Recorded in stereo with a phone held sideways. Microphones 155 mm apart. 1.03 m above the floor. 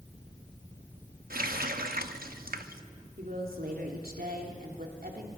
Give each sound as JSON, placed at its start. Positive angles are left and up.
{"t": 1.3, "sound": "a running tap", "side_deg": -75, "distance_m": 0.9}
{"t": 3.2, "sound": "a woman speaking", "side_deg": -75, "distance_m": 2.5}